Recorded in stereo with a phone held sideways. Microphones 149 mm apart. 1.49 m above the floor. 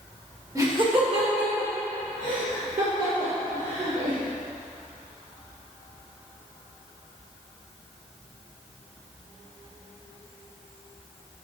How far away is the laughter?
About 1.3 m.